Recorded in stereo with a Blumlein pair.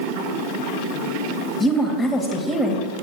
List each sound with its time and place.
1.6 s a woman speaking: 10° left, 1.6 m